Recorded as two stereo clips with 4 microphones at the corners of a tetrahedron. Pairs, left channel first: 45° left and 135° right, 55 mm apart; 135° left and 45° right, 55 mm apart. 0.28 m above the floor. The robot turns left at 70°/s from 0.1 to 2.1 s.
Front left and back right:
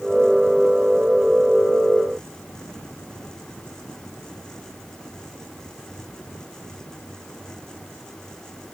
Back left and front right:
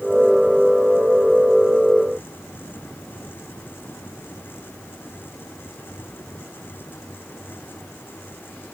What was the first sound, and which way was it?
Only background noise.